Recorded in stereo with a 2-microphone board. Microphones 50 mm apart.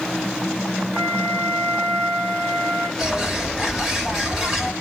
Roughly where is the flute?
Right.